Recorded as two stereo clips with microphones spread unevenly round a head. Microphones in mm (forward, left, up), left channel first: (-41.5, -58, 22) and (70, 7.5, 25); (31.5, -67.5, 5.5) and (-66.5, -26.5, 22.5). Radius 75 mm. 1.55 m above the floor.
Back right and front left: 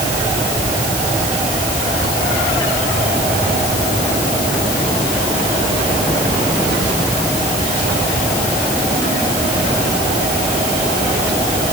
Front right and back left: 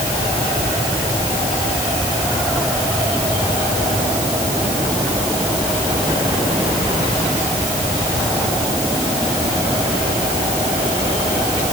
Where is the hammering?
No hammering in this recording.